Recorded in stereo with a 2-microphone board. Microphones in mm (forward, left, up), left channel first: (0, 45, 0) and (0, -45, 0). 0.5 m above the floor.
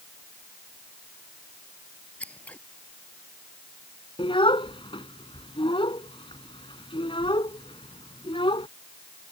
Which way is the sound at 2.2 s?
15° left (ahead or behind).